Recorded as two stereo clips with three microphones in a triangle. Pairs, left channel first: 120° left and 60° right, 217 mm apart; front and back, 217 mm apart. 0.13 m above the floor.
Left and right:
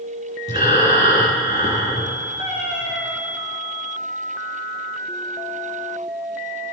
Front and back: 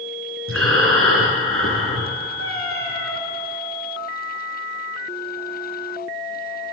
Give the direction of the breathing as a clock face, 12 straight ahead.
6 o'clock.